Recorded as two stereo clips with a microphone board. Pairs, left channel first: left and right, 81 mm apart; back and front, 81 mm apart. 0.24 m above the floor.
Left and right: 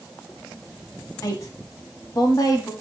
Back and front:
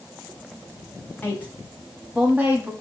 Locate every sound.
1.2 s a woman speaking: 125° left, 1.5 m; by 2.7 s 60° left, 1.4 m